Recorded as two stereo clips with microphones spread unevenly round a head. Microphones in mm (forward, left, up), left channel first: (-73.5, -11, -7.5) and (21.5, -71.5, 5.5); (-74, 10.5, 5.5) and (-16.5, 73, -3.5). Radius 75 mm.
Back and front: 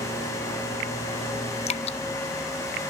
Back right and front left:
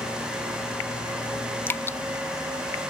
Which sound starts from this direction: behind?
Dripping, at 1.7 s.